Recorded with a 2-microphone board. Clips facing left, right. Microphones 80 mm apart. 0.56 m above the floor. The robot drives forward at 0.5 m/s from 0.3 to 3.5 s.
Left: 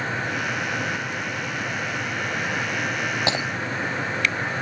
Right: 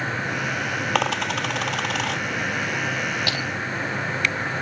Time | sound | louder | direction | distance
0.9 | a dropped coin | right 6 dB | 90° right | ?
3.3 | breaking glass | left 3 dB | 25° left (ahead or behind) | ?